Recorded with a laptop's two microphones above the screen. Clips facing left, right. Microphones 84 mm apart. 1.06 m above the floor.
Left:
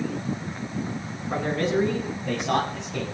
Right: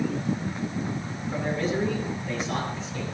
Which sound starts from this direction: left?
A man speaking, at 1.3 s.